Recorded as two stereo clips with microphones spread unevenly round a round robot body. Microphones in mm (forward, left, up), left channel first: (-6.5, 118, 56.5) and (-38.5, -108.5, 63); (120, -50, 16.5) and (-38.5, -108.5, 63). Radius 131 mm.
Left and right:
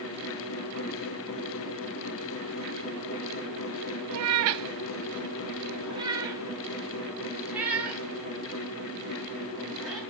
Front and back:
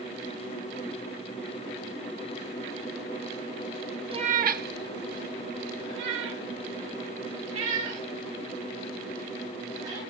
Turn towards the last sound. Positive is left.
turn(degrees=170)